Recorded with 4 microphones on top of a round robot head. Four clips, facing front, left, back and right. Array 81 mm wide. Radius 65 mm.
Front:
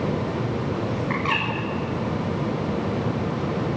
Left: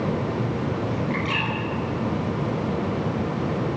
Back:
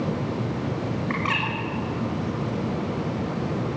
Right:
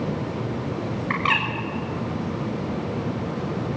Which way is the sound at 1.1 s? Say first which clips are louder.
Right 3 dB, front 1 dB; 95° right.